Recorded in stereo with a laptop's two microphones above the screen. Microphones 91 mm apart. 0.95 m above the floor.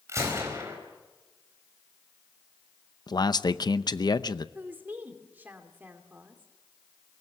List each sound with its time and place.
0.1 s a gunshot: 35° right (ahead or behind), 4.5 m
3.1 s a man speaking: 50° left (ahead or behind), 0.7 m
4.5 s a woman speaking: 20° right (ahead or behind), 2.5 m